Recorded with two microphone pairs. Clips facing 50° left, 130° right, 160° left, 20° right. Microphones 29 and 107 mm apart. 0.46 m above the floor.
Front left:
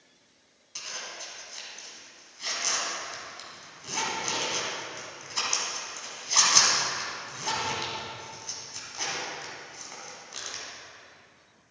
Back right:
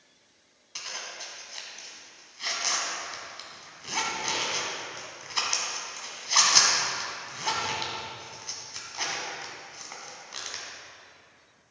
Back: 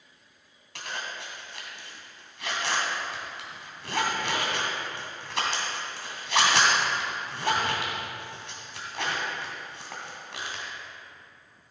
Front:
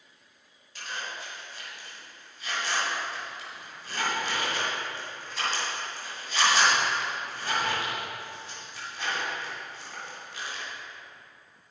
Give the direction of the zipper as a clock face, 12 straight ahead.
7 o'clock.